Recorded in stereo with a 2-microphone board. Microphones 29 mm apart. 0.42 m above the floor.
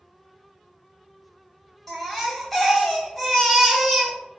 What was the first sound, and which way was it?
A baby crying, 5° left (ahead or behind).